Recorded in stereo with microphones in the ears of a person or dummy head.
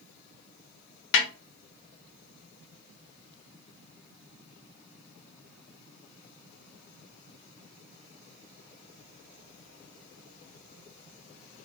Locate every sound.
1.1 s a snare drum: 65° left (ahead or behind), 1.1 m